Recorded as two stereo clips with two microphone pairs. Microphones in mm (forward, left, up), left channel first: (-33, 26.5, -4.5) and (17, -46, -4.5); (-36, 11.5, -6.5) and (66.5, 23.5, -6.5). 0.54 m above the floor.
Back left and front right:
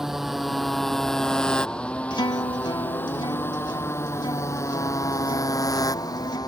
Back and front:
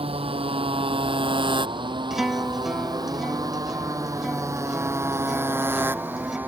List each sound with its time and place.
0.0 s a motorcycle: 30° left; by 6.5 s 80° left
2.1 s a guitar: 95° left